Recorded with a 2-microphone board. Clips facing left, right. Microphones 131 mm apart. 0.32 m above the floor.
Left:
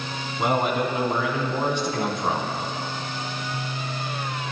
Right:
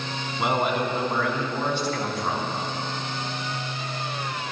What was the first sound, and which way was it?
A man speaking, 5° right (ahead or behind).